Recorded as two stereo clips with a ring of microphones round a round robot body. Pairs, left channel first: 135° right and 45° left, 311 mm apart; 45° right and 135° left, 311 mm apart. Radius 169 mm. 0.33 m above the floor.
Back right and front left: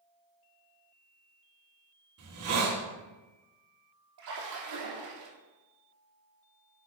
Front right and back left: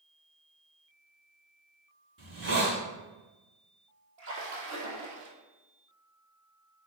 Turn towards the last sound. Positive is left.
turn(degrees=80)